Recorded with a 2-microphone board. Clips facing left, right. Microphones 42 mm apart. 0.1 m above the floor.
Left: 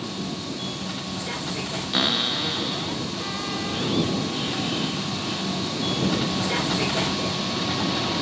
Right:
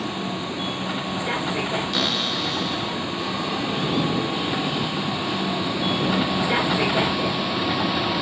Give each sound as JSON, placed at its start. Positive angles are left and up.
{"t": 0.0, "sound": "a vehicle", "side_deg": -25}
{"t": 1.9, "sound": "a cupboard door", "side_deg": 10}